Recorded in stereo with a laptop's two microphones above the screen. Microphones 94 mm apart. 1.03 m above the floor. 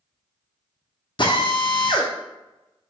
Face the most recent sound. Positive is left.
turn(degrees=55)  # may be behind; listen again after turning